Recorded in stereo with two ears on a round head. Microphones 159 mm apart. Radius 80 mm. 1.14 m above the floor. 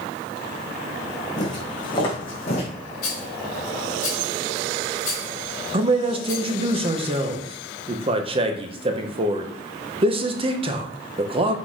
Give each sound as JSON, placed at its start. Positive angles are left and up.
{"t": 1.4, "sound": "footsteps", "side_deg": 25, "distance_m": 3.5}
{"t": 3.0, "sound": "a rattle", "side_deg": 45, "distance_m": 3.0}
{"t": 5.7, "sound": "a man speaking", "side_deg": -30, "distance_m": 0.9}